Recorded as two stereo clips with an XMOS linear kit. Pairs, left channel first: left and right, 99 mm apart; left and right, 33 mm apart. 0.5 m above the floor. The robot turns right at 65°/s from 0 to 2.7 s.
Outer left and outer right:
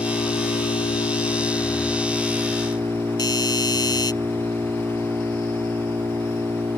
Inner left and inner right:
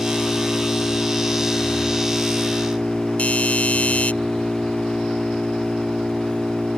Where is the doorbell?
45° left (ahead or behind).